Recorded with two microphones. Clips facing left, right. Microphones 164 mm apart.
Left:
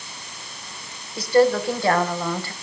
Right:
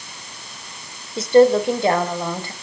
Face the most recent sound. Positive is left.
turn(degrees=-20)  # may be behind; listen again after turning